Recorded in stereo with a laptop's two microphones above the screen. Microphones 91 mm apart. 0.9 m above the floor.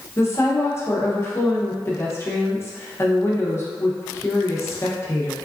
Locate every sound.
0.2 s a woman speaking: 30° left (ahead or behind), 0.6 m